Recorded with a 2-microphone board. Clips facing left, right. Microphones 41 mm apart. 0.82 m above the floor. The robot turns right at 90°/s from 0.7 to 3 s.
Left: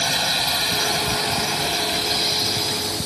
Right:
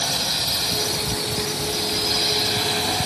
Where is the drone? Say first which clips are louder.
Left 3 dB; 35° left; by 3.1 s 120° right.